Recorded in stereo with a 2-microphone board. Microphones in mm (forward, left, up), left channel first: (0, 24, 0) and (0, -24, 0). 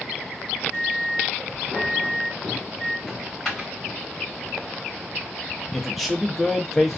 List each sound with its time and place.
0.7 s a microwave: 70° right (ahead or behind), 1.3 m
3.1 s a dropped coin: 5° left (ahead or behind), 1.3 m
5.7 s a man speaking: 5° right (ahead or behind), 0.6 m